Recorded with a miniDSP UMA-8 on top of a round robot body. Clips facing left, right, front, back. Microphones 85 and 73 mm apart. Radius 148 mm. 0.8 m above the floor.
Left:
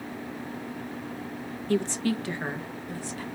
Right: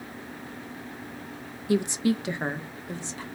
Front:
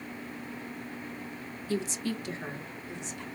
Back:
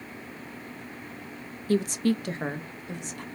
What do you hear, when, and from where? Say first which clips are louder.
1.7 s a woman speaking: right 2 dB, back 8 dB; 165° right, 0.9 m; by 3.2 s 155° right, 2.0 m